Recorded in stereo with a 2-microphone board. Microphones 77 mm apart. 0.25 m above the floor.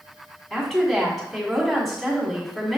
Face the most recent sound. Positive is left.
turn(degrees=0)  # may be behind; listen again after turning